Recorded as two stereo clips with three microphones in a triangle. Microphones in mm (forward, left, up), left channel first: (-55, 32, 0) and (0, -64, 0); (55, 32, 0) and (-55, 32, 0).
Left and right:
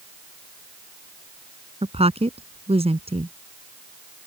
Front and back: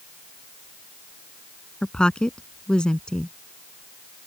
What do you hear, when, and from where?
1.8 s a woman speaking: 80° right